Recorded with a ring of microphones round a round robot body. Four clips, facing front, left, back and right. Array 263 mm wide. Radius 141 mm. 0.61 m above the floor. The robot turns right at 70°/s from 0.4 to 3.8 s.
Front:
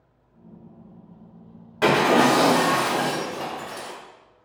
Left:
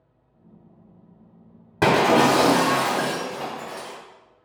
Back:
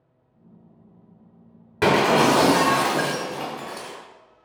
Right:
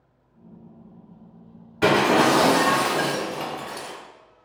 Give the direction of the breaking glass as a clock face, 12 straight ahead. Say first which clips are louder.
Left 1 dB, even; 8 o'clock.